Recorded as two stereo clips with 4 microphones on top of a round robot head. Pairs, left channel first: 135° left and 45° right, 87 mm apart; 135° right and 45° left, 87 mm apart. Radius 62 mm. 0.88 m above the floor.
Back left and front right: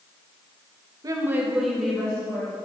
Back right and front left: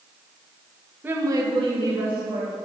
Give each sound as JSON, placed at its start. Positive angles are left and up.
{"t": 1.0, "sound": "a woman speaking", "azimuth_deg": -15, "distance_m": 1.0}